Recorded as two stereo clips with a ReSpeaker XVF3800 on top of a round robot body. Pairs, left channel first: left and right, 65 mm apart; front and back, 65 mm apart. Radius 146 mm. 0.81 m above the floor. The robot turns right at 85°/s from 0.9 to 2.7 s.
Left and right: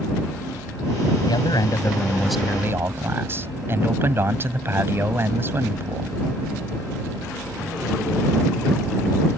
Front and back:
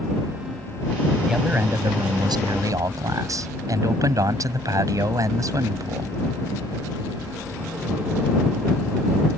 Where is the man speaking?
90° left; by 6.1 s 145° right.